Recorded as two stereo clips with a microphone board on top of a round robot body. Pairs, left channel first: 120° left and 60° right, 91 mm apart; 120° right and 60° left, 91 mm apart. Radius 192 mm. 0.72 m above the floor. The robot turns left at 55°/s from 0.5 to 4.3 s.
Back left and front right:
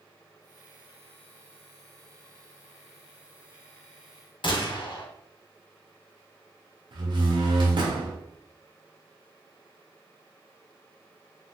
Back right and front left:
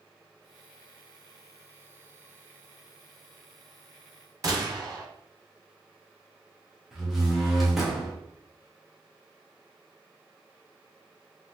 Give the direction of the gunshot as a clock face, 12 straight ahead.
9 o'clock.